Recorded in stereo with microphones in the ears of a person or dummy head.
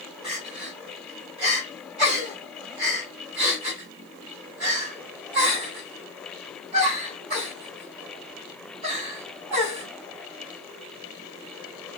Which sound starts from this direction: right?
Crying, at 0.2 s.